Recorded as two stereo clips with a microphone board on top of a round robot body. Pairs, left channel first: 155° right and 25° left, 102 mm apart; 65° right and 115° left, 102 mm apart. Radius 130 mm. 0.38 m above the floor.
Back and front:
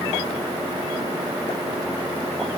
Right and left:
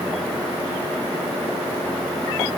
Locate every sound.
Only background noise.